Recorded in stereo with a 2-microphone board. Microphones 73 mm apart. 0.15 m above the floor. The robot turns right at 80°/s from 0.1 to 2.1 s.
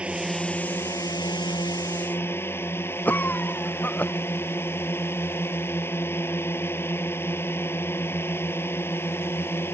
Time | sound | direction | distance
0.0 | a drone | 15° right | ?
3.0 | a cough | 25° left (ahead or behind) | ?